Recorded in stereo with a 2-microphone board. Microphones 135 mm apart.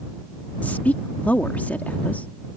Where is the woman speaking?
15° left (ahead or behind).